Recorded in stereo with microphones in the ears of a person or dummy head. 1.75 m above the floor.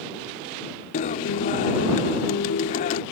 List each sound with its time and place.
0.9 s a guitar: 35° left (ahead or behind)